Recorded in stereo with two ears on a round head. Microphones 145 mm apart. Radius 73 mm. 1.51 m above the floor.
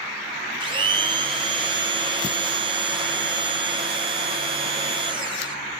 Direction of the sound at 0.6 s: 30° right (ahead or behind).